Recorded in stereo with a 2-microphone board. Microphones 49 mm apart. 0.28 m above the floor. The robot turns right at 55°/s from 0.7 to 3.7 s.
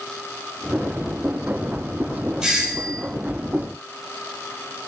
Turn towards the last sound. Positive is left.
turn(degrees=-95)